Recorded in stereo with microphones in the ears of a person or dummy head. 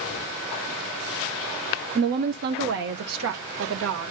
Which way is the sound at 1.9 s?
30° right (ahead or behind).